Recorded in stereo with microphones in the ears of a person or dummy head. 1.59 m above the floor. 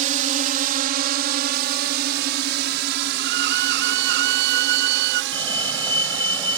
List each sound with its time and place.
0.0 s a drone: 40° right (ahead or behind); by 6.6 s 70° right (ahead or behind)
3.2 s a violin: 65° right (ahead or behind)
5.3 s a fire alarm: 10° left (ahead or behind)